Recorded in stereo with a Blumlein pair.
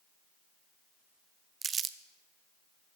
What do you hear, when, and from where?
1.6 s crumpling: 20° right, 0.6 m